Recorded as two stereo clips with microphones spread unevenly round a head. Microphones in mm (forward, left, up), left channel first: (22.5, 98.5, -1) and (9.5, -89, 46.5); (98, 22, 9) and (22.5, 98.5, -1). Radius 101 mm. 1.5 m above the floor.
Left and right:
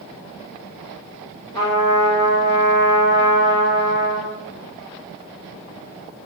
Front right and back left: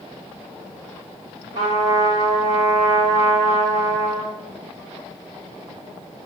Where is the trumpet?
160° left, 2.5 m.